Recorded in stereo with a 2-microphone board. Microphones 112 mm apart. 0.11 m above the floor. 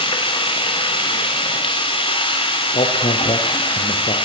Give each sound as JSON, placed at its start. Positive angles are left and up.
{"t": 0.0, "sound": "running water", "side_deg": 50, "distance_m": 3.5}
{"t": 2.8, "sound": "a man speaking", "side_deg": 70, "distance_m": 3.5}